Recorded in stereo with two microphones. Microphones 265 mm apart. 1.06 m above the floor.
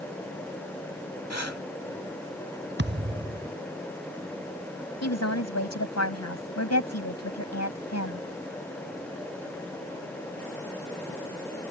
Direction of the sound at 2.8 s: 45° right (ahead or behind).